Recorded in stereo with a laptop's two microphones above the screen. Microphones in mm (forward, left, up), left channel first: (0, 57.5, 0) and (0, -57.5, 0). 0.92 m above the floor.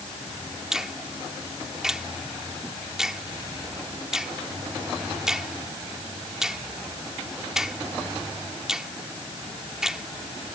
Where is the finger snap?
5° right (ahead or behind).